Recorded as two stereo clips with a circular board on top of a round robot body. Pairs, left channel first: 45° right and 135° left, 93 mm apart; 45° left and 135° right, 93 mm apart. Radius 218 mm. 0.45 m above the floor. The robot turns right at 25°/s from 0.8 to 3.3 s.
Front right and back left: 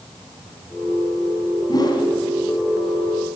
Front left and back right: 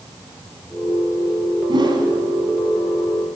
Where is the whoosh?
95° right, 2.5 m; by 2.1 s 85° right, 2.5 m.